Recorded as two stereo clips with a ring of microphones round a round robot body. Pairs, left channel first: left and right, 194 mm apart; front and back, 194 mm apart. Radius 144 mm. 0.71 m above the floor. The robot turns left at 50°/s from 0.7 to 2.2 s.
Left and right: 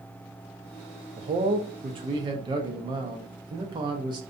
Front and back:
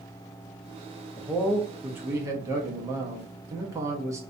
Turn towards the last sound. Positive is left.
turn(degrees=-125)